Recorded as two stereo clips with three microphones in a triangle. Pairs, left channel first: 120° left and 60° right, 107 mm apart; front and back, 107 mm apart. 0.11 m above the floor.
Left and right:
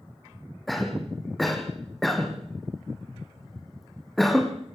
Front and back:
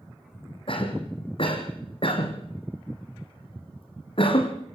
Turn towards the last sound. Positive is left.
turn(degrees=30)